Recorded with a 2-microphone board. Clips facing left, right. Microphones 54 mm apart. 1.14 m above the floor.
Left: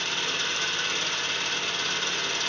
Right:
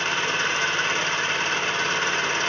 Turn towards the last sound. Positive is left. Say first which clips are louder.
# right 6 dB
turn(degrees=-40)  # may be behind; listen again after turning